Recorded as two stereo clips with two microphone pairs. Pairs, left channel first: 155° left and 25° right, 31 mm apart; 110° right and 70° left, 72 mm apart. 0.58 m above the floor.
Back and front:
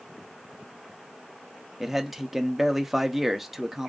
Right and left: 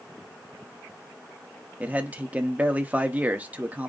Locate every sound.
1.8 s a man speaking: 50° left, 0.7 m